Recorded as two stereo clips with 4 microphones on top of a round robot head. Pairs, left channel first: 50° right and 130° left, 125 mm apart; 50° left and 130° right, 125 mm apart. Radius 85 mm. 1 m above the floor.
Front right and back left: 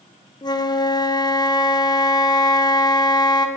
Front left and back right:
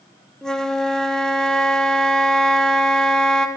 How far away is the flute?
About 0.5 m.